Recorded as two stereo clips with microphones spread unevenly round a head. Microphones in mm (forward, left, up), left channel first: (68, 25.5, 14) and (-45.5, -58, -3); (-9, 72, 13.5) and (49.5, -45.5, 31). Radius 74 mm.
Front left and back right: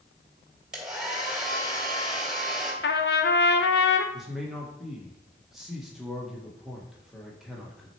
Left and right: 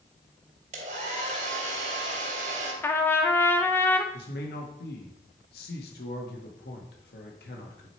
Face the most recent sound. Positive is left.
turn(degrees=125)